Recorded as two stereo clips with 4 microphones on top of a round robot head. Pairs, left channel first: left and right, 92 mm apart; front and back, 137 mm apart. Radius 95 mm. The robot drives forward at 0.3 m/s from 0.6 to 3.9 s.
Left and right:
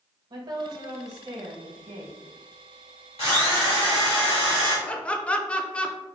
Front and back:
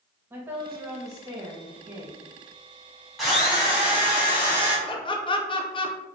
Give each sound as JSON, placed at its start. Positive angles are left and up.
{"t": 0.3, "sound": "a woman speaking", "azimuth_deg": -105, "distance_m": 0.9}
{"t": 3.2, "sound": "a drill", "azimuth_deg": 95, "distance_m": 1.2}
{"t": 4.9, "sound": "laughter", "azimuth_deg": 20, "distance_m": 0.5}